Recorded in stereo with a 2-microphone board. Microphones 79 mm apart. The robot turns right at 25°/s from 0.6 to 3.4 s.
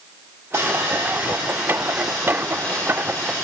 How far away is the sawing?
About 7.5 m.